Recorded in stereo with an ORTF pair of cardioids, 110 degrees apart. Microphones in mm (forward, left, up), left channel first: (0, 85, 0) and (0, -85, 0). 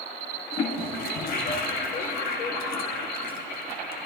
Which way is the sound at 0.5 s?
65° left.